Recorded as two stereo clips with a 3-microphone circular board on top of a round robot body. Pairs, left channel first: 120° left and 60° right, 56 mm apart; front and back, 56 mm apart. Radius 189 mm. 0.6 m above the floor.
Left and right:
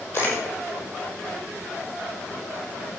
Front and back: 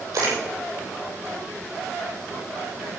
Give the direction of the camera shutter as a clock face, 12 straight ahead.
6 o'clock.